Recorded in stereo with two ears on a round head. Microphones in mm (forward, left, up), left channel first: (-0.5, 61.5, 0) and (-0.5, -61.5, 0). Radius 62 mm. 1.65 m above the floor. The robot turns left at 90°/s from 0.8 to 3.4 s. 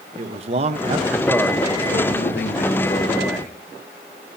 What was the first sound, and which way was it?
A man speaking, 130° right.